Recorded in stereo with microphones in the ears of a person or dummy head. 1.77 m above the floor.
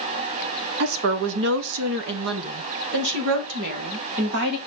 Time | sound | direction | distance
0.8 | a woman speaking | 50° right (ahead or behind) | 0.7 m